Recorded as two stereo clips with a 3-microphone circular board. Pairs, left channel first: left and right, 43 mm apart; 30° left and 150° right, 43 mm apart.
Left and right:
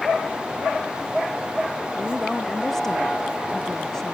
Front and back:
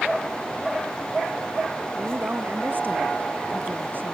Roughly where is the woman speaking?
Behind.